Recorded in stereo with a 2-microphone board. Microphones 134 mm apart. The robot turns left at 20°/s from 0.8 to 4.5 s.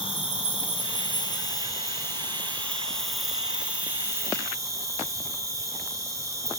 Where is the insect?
45° left, 1.4 m; by 6.6 s 25° right, 1.4 m.